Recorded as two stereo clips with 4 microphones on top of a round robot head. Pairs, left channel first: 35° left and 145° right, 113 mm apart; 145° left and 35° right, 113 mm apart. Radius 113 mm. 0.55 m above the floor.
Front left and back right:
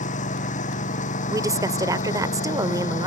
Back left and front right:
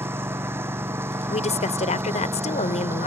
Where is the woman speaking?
160° left.